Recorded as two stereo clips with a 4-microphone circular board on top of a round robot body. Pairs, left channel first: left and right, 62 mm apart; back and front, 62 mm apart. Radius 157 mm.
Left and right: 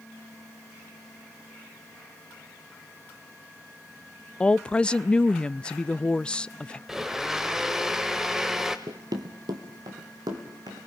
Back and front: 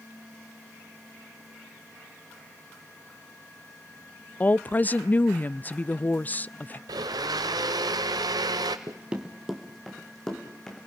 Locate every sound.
4.4 s a woman speaking: 150° left, 0.5 m
6.9 s a blender: 5° right, 0.6 m
8.9 s running footsteps: 50° right, 0.8 m; by 10.8 s 100° right, 3.5 m